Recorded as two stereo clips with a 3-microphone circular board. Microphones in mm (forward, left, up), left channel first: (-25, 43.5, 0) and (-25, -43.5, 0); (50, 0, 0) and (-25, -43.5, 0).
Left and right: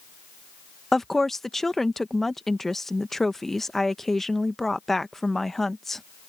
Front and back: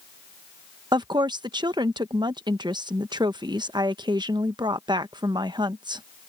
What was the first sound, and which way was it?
A woman speaking, 175° left.